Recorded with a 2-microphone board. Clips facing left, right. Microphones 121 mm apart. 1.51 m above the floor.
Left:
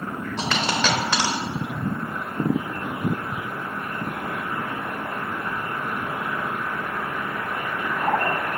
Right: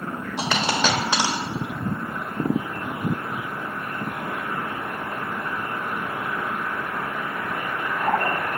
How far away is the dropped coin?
About 1.4 m.